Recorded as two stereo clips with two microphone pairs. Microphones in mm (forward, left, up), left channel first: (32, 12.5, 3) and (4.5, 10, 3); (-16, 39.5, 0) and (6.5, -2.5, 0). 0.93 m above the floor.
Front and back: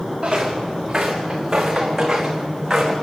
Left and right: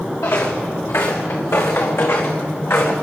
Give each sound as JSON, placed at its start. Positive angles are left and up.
{"t": 0.2, "sound": "footsteps", "azimuth_deg": 110, "distance_m": 5.0}